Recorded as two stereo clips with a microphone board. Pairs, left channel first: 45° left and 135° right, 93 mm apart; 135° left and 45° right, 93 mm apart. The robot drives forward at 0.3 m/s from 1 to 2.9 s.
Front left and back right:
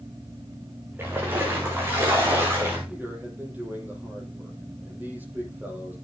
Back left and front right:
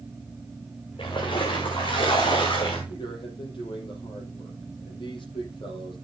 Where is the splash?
160° left, 4.5 m.